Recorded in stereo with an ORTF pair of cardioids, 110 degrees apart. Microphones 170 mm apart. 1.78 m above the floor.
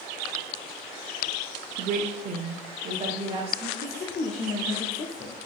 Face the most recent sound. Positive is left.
turn(degrees=40)